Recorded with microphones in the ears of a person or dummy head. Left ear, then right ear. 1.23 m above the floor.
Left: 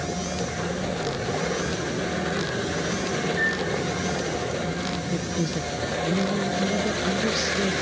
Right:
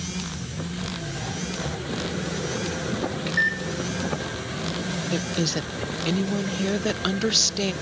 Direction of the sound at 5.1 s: 35° right (ahead or behind).